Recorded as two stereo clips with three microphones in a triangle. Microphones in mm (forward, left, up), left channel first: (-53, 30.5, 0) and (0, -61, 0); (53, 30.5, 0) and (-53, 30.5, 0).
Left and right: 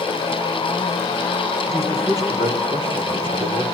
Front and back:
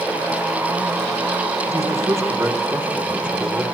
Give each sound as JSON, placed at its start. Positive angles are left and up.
{"t": 1.7, "sound": "a man speaking", "azimuth_deg": -120, "distance_m": 5.0}